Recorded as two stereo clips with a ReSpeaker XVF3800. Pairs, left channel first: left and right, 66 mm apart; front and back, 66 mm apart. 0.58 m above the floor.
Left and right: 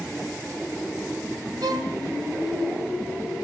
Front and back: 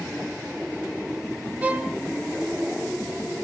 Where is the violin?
105° right, 0.5 m.